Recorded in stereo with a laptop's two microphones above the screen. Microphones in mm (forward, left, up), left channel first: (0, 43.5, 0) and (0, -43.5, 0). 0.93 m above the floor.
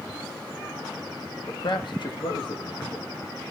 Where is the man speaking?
65° left (ahead or behind), 1.2 m.